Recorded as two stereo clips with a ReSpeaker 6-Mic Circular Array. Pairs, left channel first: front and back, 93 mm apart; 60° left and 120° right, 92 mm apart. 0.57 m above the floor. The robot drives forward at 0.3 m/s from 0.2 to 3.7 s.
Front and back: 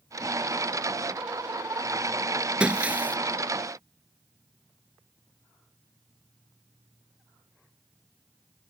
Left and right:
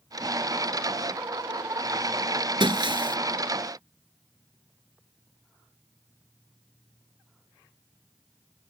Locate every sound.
2.6 s breaking glass: 100° right; by 3.2 s 110° right